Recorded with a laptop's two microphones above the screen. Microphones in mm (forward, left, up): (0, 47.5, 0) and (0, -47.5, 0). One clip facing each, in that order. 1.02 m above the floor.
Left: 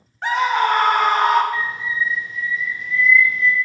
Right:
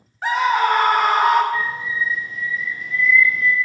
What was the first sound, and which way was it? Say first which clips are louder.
A scream: even; centre (ahead or behind).